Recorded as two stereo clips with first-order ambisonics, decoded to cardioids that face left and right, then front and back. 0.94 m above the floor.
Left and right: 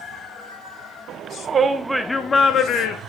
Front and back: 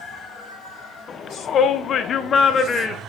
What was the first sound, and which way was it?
A shout, 50° right.